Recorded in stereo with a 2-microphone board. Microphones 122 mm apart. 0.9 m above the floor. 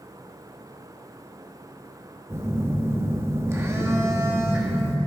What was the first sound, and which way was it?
A phone buzzing, 20° right (ahead or behind).